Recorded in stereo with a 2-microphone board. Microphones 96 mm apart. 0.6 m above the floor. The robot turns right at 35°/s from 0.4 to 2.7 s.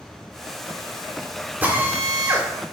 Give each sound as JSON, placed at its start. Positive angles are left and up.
{"t": 1.6, "sound": "a drill", "azimuth_deg": -155, "distance_m": 2.0}